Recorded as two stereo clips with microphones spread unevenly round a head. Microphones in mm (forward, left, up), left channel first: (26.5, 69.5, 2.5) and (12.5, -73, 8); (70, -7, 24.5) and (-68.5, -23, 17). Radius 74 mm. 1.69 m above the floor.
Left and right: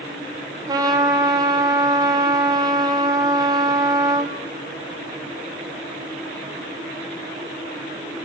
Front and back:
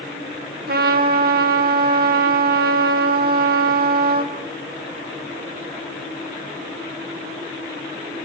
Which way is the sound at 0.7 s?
160° right.